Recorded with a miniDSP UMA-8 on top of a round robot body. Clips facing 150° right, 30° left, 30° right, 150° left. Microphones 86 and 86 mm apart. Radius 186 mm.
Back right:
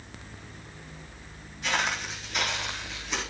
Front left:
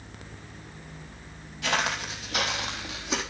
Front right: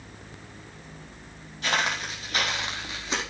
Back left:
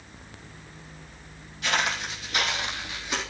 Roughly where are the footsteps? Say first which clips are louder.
Front left 1 dB, even; ahead left.